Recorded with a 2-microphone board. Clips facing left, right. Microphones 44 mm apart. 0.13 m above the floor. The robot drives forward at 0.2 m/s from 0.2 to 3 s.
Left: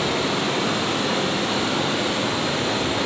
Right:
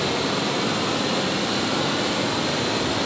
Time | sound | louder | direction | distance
0.0 | running water | left 1 dB | 45° left (ahead or behind) | 3 m